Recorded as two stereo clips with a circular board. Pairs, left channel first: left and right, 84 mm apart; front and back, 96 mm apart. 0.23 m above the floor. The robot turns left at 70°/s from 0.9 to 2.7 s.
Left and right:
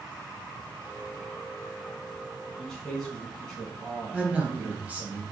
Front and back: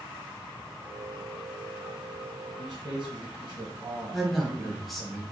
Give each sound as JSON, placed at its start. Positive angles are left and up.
{"t": 2.6, "sound": "a man speaking", "azimuth_deg": 180, "distance_m": 1.8}
{"t": 4.1, "sound": "a man speaking", "azimuth_deg": -90, "distance_m": 1.0}